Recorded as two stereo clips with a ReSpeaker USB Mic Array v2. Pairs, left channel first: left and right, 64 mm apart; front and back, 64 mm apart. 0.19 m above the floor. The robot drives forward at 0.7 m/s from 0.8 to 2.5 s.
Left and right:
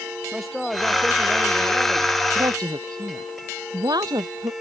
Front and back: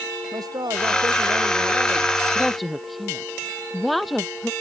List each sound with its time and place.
0.3 s a man speaking: 175° right; by 2.1 s straight behind
2.4 s a woman speaking: 90° right